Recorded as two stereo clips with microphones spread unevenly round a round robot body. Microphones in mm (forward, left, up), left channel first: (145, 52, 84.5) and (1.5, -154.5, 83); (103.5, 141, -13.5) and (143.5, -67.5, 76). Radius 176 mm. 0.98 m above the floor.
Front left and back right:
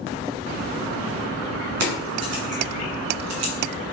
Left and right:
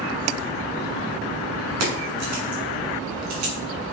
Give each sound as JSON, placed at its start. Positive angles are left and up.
{"t": 1.8, "sound": "keys jangling", "azimuth_deg": -100, "distance_m": 1.8}